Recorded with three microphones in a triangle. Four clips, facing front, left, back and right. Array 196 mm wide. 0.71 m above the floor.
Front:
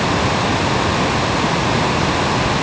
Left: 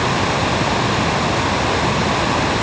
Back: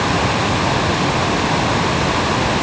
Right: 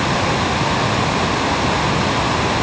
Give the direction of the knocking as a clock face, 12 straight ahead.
I don't hear knocking.